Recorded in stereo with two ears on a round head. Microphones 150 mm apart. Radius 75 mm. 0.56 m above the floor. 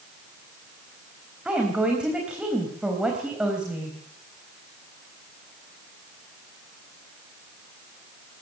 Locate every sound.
1.4 s a woman speaking: 5° right (ahead or behind), 3.5 m